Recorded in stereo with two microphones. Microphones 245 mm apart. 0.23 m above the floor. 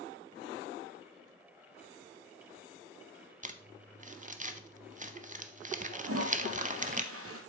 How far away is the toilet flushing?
About 2.5 m.